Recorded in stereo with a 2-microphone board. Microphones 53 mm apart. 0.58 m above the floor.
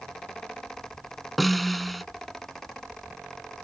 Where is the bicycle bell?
I don't hear a bicycle bell.